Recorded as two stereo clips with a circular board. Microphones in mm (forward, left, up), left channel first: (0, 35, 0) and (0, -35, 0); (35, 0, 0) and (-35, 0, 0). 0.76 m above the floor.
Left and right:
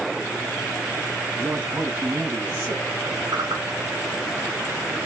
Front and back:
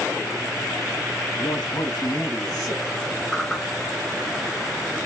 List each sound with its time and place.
1.4 s a man speaking: 30° right, 7 m; by 2.8 s 40° right, 7 m
3.3 s a whoosh: 80° right, 2.5 m